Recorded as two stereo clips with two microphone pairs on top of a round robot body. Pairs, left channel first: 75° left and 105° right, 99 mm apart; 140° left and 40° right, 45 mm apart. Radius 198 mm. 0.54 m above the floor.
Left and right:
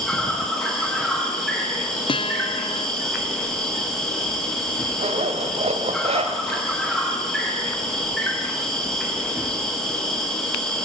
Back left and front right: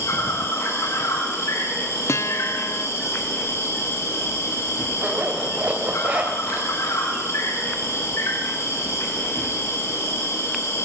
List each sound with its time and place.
0.0 s an insect: 160° left, 8.5 m
2.1 s a guitar: 110° left, 0.5 m
5.0 s a zipper: 105° right, 2 m